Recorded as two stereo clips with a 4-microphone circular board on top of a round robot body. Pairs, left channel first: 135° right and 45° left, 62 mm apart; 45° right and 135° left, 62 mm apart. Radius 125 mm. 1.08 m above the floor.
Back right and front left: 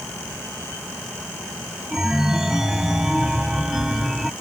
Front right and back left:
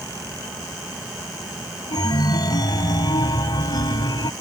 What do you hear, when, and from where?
1.9 s a chime: 40° right